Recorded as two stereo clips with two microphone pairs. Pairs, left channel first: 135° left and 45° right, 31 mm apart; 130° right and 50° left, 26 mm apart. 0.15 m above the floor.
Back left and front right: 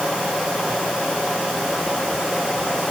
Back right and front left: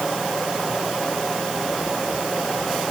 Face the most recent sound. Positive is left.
No sound to turn to.